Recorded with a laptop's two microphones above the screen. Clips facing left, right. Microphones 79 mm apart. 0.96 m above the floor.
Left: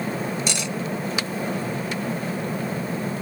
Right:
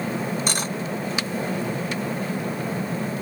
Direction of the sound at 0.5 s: 40° right (ahead or behind).